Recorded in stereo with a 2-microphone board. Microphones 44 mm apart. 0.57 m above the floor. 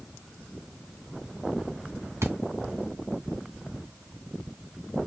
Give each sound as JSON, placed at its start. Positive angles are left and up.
{"t": 2.2, "sound": "a thud", "side_deg": -85, "distance_m": 1.6}